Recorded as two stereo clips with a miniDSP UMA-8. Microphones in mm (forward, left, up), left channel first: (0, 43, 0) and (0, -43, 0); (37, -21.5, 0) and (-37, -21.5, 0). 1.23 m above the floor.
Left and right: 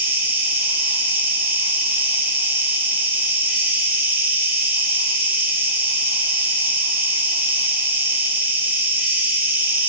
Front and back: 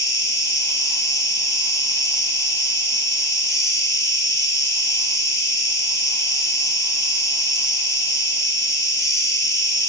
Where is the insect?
30° right, 1.0 m.